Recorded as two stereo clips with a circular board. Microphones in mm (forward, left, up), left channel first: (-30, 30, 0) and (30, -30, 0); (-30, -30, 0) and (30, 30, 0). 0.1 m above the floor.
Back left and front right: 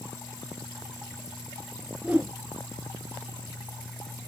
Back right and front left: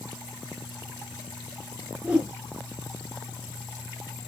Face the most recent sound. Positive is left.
turn(degrees=-5)